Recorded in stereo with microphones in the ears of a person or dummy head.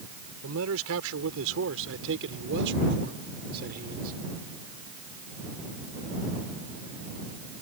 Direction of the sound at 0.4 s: 85° right.